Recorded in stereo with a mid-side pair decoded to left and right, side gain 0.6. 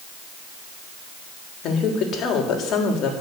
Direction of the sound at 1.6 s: 55° left.